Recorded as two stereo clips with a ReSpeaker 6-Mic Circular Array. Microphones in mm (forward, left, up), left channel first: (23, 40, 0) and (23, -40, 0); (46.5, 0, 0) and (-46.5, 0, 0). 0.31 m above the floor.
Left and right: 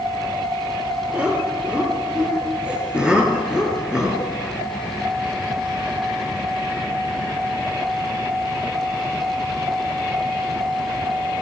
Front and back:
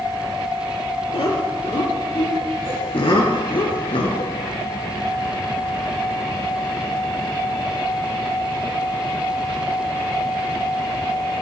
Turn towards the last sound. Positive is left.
turn(degrees=-10)